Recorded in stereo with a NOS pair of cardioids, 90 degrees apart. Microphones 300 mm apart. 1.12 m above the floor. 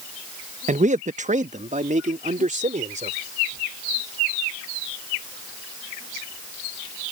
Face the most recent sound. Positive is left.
turn(degrees=-25)